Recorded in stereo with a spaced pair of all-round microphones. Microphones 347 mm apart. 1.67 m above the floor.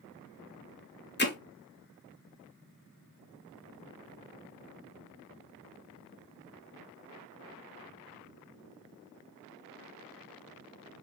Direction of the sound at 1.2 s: 30° left (ahead or behind).